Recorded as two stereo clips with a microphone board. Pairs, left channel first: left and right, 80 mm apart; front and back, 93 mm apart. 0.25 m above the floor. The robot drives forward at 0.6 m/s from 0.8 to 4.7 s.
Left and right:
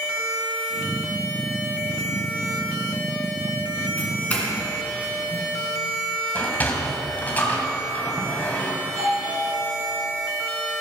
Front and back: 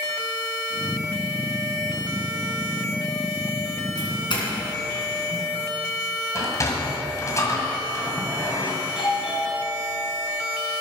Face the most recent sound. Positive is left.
turn(degrees=-95)